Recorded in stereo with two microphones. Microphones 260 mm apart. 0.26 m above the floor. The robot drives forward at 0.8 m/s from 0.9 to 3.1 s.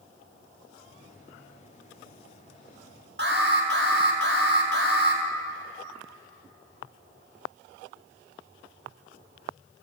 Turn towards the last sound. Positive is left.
turn(degrees=-50)  # may be behind; listen again after turning